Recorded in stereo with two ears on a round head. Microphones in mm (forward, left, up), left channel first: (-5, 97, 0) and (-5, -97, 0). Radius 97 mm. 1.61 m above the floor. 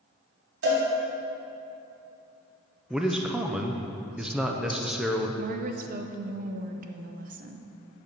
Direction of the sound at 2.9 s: 5° right (ahead or behind).